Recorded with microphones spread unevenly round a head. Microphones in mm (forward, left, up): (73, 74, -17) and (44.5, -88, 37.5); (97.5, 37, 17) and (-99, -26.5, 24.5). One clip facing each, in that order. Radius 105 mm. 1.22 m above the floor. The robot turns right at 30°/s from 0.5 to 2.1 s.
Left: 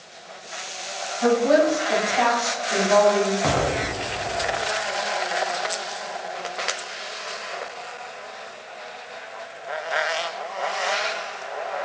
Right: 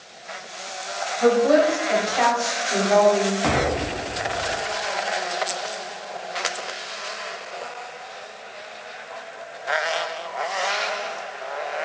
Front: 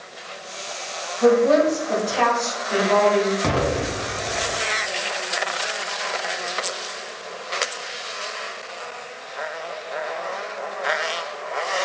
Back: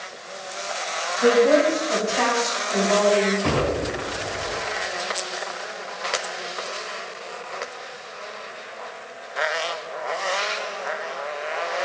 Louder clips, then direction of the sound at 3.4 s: Right 1 dB, even; 10° right.